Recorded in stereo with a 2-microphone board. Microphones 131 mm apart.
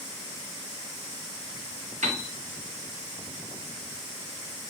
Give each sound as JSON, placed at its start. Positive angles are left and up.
{"t": 2.0, "sound": "a piano", "side_deg": -80, "distance_m": 1.8}